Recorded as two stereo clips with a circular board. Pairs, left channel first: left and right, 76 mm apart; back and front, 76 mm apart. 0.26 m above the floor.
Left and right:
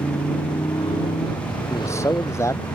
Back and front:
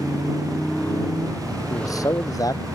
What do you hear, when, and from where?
0.0 s a motorcycle: 105° left
1.7 s a man speaking: 140° left